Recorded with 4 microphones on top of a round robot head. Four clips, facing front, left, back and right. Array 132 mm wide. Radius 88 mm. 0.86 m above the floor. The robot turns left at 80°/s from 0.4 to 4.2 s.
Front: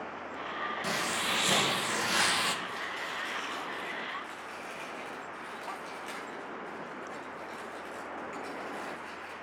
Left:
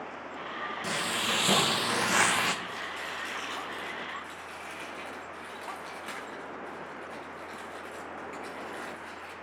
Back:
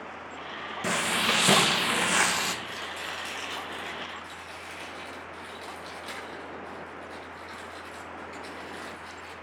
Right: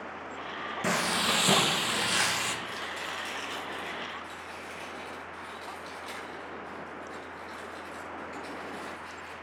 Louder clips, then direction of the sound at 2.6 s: Even, even; 125° right.